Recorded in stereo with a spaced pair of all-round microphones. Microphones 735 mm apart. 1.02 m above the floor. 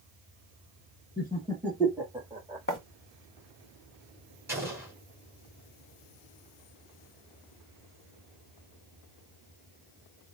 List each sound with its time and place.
1.2 s laughter: 15° left (ahead or behind), 1.0 m; by 2.6 s 10° right (ahead or behind), 2.0 m
2.7 s writing: 15° left (ahead or behind), 1.0 m
4.5 s an explosion: 5° right (ahead or behind), 2.5 m